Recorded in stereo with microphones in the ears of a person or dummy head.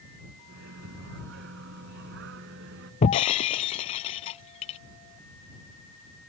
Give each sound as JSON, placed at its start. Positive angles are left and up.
{"t": 0.5, "sound": "a microwave", "side_deg": -65}
{"t": 3.0, "sound": "breaking glass", "side_deg": 30}